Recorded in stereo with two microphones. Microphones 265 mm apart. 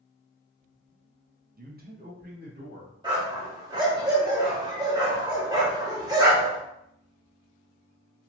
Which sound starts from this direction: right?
A man speaking, at 1.6 s.